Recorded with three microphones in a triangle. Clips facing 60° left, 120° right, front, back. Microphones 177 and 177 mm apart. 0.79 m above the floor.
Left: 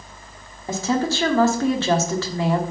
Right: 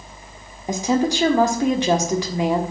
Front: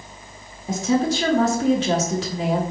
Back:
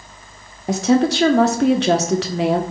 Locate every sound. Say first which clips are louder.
0.7 s a woman speaking: right 2 dB, back 5 dB; 165° left, 1.3 m